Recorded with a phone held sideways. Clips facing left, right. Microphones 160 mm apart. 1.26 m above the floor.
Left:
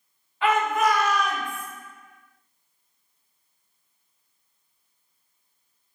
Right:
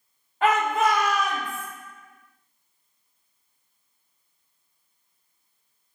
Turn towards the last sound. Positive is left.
turn(degrees=20)  # may be behind; listen again after turning